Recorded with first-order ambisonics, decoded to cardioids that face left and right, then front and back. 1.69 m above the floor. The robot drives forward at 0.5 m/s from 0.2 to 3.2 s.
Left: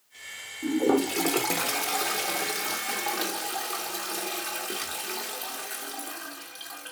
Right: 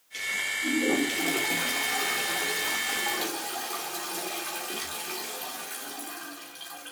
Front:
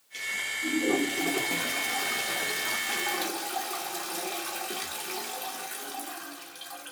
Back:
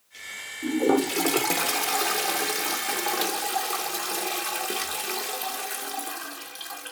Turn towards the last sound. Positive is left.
turn(degrees=160)